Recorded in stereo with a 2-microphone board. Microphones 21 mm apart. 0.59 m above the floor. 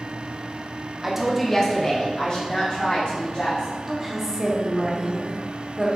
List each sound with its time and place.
1.0 s a woman speaking: 20° right (ahead or behind), 0.7 m; by 3.7 s 65° left (ahead or behind), 1.8 m
3.9 s a woman speaking: centre (ahead or behind), 1.0 m